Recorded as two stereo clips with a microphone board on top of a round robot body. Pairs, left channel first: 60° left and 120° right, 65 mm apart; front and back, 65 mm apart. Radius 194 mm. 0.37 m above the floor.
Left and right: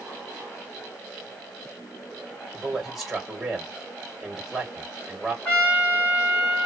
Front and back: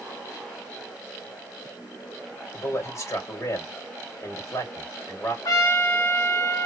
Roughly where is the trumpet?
Ahead.